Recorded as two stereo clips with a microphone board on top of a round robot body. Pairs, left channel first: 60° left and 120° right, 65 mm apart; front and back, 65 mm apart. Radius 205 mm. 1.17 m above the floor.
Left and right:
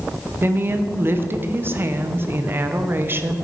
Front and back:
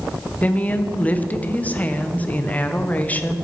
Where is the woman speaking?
65° right, 1.1 m.